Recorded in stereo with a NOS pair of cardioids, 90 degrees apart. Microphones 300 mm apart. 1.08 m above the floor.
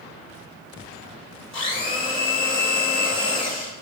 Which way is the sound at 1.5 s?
40° left.